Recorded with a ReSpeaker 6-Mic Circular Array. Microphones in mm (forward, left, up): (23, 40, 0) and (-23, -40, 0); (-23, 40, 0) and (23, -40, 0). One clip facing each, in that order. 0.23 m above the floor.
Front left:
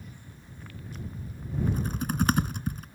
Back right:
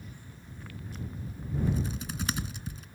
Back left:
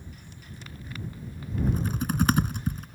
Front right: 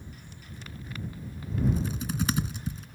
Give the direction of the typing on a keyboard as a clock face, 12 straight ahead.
9 o'clock.